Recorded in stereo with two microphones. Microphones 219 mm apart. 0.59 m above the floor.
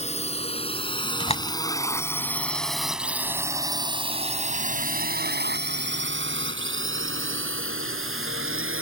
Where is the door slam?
30° left (ahead or behind).